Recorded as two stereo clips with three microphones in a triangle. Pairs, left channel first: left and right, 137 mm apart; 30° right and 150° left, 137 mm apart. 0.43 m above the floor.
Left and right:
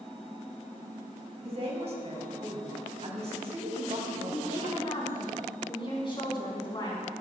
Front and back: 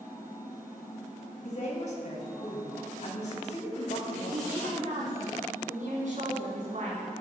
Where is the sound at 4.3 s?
140° left, 4.5 m.